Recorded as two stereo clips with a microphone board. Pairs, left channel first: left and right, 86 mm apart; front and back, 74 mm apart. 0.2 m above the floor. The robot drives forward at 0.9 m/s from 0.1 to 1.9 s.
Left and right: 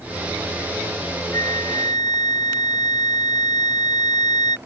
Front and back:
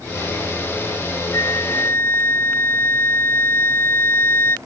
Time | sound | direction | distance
1.3 | a flute | 45° left | ?